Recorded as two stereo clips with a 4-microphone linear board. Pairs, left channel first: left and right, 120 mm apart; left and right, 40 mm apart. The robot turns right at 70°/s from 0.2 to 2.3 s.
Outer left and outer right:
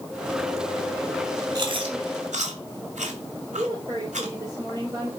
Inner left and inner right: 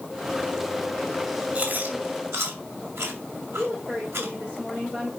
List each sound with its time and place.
1.6 s chewing: 35° right (ahead or behind), 2.5 m; by 4.3 s 85° right, 2.5 m
3.6 s a woman speaking: 35° right (ahead or behind), 3 m